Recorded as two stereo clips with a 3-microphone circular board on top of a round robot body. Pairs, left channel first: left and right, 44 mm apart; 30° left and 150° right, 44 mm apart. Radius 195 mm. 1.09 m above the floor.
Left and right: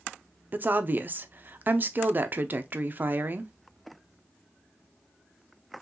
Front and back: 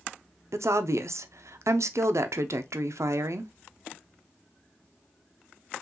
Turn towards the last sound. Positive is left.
turn(degrees=-140)